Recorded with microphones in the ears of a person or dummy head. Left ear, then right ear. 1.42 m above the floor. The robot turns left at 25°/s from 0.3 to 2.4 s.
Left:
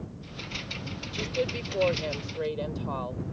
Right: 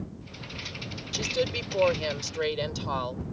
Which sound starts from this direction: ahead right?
A woman speaking, at 1.1 s.